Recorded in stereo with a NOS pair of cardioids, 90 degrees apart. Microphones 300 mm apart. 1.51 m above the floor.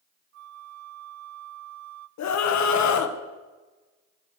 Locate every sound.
0.3 s a flute: 55° right, 0.5 m
2.2 s a scream: 60° left, 1.6 m